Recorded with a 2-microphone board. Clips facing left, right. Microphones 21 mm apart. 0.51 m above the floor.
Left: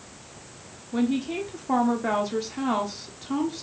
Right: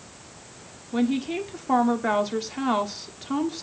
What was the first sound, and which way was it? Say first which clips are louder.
A woman speaking: right 1 dB; 15° right (ahead or behind).